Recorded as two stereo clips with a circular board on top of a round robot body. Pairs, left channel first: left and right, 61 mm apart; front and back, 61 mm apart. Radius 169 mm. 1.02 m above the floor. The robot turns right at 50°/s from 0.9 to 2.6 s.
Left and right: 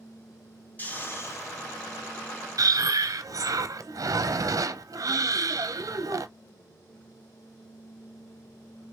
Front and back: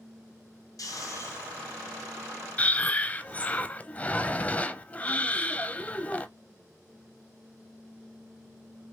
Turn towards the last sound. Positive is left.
turn(degrees=-70)